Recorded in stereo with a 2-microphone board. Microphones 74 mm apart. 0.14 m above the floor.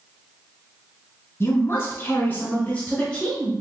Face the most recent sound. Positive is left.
turn(degrees=10)  # may be behind; listen again after turning